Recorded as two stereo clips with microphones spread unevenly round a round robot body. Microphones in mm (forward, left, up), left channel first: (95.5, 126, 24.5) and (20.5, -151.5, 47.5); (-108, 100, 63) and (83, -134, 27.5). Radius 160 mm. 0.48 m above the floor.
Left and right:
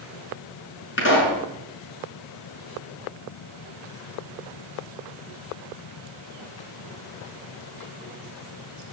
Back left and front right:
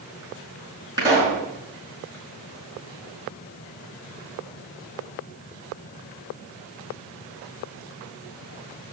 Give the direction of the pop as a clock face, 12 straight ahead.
11 o'clock.